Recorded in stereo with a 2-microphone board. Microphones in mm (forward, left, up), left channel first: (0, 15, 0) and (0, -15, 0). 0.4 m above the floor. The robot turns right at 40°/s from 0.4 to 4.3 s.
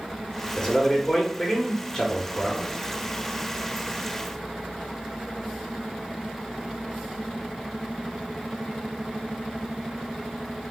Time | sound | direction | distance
0.6 | a man speaking | 80° left | 0.9 m